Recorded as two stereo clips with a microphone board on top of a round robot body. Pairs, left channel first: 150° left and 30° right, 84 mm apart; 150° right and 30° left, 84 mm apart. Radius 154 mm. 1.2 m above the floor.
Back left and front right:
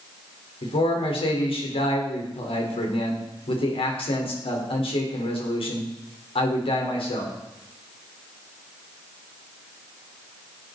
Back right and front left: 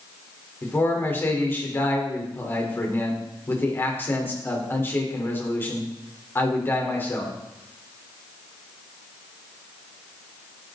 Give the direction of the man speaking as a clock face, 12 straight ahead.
7 o'clock.